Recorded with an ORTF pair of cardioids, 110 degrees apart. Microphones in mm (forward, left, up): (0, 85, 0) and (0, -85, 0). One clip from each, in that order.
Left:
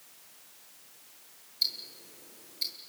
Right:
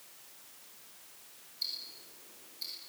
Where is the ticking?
55° left, 8.5 m.